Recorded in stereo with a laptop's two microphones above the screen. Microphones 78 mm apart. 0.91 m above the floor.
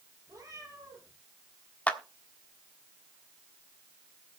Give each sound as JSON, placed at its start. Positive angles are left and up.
{"t": 0.3, "sound": "a cat meowing", "side_deg": -45, "distance_m": 4.0}
{"t": 1.9, "sound": "a clap", "side_deg": 20, "distance_m": 1.4}